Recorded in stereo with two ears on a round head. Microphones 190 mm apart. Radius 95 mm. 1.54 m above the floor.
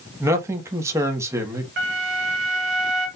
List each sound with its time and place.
0.2 s a man speaking: 15° right (ahead or behind), 1.2 m
1.8 s a flute: 55° right (ahead or behind), 1.9 m